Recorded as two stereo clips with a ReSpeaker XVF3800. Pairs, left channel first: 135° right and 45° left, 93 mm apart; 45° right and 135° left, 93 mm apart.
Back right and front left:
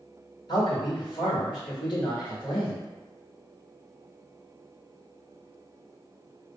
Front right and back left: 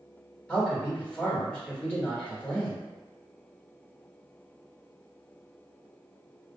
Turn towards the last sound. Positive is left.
turn(degrees=-120)